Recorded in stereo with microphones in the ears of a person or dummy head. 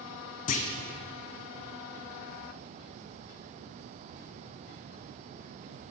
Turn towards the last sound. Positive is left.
turn(degrees=45)  # may be behind; listen again after turning